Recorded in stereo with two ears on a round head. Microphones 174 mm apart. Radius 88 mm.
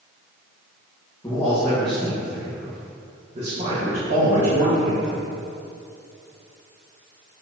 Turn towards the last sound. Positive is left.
turn(degrees=-70)  # may be behind; listen again after turning